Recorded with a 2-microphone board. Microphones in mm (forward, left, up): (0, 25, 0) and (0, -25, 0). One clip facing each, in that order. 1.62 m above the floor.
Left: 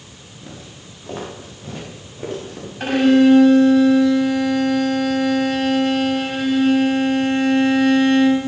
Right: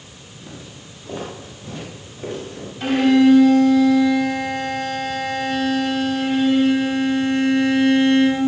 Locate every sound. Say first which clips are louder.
0.4 s footsteps: even; 40° left (ahead or behind), 9 m; by 2.7 s 45° left (ahead or behind), 9.5 m
2.8 s a violin: left 1 dB; 55° left (ahead or behind), 6 m